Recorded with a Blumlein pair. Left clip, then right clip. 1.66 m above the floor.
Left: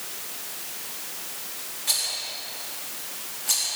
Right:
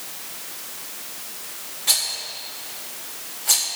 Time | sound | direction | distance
1.9 | a rattle | 15° right | 3.5 m